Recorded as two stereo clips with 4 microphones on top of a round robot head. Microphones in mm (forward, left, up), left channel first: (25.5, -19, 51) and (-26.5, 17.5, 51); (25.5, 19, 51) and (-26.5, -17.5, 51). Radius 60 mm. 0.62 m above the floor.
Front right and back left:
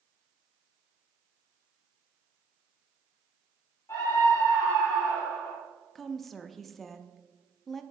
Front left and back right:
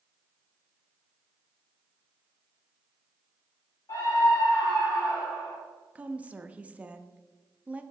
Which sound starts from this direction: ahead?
A scream, at 3.9 s.